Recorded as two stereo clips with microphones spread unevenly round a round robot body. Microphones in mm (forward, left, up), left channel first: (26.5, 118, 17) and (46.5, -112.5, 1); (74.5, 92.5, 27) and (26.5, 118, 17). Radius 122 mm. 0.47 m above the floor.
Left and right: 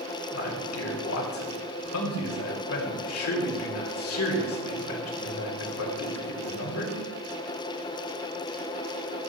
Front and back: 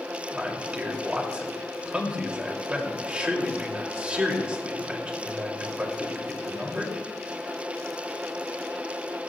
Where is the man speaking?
95° left, 2.5 m.